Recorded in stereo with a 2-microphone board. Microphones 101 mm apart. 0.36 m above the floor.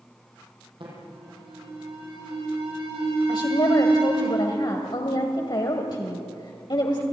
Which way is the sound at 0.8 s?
55° right (ahead or behind).